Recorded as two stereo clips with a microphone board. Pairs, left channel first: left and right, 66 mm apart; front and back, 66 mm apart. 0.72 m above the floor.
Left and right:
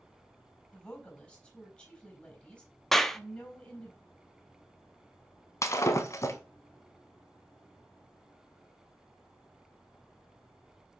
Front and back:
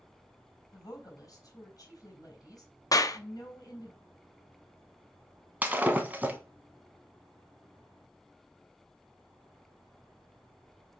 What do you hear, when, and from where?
0.7 s a woman speaking: 15° left, 3.5 m
2.9 s a clap: 5° left, 0.5 m
5.6 s breaking glass: 120° left, 1.2 m